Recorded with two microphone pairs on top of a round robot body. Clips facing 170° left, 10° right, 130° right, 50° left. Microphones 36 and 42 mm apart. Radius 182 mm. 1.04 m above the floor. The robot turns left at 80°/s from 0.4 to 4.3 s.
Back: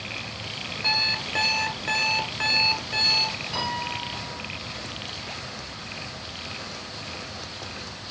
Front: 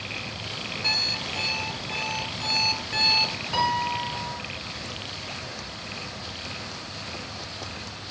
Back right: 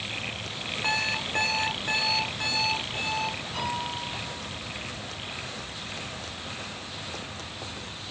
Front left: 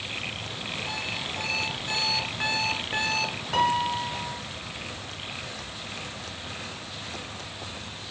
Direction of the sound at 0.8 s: 100° right.